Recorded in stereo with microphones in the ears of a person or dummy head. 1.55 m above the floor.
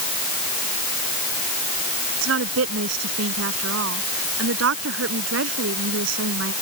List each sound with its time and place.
2.2 s a woman speaking: 80° right